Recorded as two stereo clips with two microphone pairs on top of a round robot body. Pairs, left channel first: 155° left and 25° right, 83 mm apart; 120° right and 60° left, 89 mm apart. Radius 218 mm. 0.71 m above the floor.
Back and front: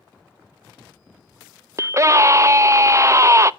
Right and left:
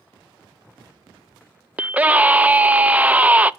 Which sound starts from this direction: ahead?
A scream, at 1.8 s.